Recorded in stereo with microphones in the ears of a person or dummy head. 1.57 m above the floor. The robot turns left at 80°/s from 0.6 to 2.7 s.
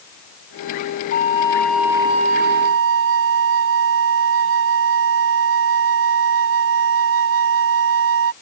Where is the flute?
50° left; by 8.3 s 75° right.